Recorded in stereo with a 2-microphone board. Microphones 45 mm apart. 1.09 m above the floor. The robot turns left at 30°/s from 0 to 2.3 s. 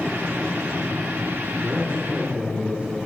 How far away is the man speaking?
About 3 m.